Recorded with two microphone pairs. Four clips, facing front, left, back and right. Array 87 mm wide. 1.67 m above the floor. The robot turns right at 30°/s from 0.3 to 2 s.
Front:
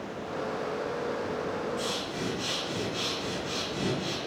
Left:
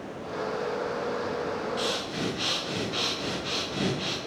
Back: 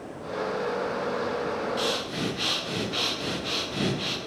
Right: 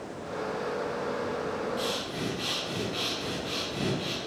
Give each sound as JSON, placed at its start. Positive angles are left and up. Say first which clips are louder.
{"t": 1.8, "sound": "breathing", "louder": "left 2 dB, back 4 dB", "azimuth_deg": 130, "distance_m": 0.7}